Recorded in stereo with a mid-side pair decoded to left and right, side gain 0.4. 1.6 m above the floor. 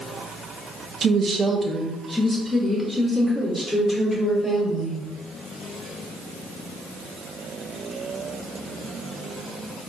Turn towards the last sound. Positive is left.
turn(degrees=15)